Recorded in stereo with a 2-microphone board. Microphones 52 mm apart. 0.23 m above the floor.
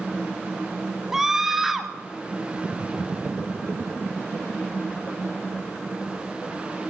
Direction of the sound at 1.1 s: 10° right (ahead or behind).